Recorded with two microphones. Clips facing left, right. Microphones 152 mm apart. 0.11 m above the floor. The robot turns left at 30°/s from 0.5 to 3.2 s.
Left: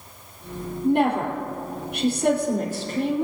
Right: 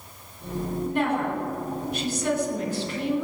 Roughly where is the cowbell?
I don't hear a cowbell.